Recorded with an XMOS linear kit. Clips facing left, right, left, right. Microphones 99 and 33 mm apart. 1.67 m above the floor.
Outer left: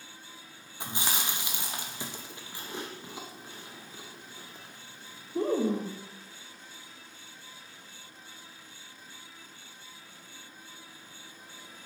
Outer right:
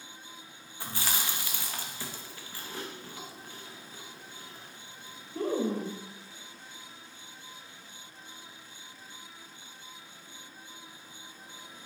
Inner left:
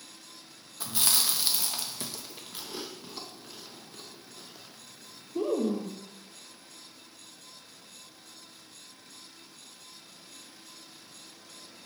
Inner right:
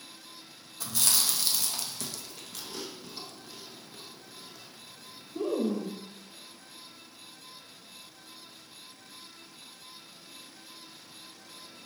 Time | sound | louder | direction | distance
0.8 | chewing | outer left 1 dB, inner left 1 dB | 20° left (ahead or behind) | 0.5 m